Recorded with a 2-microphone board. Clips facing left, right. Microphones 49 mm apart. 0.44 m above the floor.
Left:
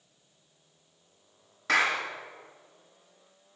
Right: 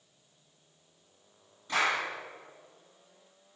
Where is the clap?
80° left, 4.5 m.